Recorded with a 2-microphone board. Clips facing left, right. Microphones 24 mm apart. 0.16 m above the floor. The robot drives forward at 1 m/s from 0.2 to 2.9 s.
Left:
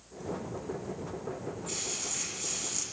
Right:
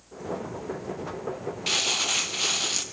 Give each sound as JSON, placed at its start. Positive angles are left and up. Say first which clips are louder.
{"t": 1.7, "sound": "crumpling", "louder": "right 16 dB", "side_deg": -75, "distance_m": 2.0}